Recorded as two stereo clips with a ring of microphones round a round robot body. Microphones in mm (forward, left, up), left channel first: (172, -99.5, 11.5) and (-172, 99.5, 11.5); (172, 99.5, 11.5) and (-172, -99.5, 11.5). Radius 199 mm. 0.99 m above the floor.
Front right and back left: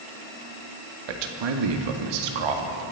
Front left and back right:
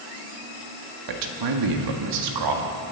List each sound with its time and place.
1.1 s a man speaking: 175° left, 1.8 m